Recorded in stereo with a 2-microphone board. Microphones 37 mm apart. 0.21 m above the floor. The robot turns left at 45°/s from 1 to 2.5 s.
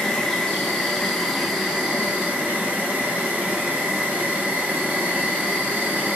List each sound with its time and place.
0.0 s an insect: 10° left, 1.3 m; by 6.2 s 55° right, 1.3 m